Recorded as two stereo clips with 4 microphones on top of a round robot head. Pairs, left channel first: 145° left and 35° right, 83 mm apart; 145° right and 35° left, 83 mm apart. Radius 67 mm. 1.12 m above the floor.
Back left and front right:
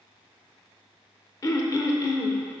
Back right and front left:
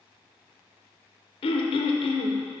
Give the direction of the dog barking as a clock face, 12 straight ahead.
I don't hear a dog barking.